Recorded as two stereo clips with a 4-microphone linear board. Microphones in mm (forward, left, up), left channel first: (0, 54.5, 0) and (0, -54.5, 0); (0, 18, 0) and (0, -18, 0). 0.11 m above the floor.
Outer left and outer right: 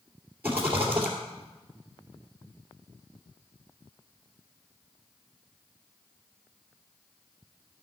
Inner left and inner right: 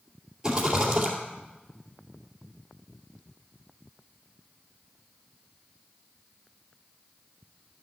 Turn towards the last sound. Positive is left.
turn(degrees=-15)  # may be behind; listen again after turning